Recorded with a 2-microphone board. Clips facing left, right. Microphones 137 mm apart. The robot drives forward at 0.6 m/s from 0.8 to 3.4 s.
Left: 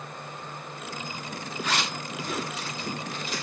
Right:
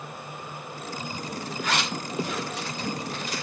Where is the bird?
I don't hear a bird.